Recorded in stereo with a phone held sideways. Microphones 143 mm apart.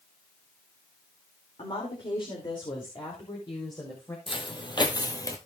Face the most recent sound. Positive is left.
turn(degrees=25)  # may be behind; listen again after turning